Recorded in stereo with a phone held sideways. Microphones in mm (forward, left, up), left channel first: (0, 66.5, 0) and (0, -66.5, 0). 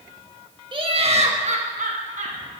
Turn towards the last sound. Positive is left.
turn(degrees=-65)  # may be behind; listen again after turning